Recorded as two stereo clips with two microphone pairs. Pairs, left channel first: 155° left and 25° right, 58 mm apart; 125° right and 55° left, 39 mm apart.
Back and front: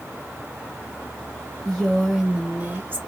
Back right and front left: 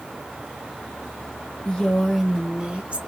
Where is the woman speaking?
150° right, 1.1 m; by 3.0 s 15° left, 1.4 m.